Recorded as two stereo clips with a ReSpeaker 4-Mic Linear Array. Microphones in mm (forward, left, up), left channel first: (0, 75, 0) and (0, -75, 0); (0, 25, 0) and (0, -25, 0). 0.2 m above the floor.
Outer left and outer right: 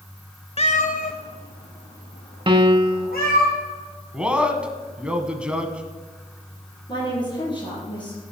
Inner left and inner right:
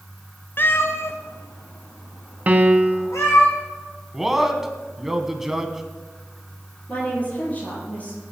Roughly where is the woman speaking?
Left.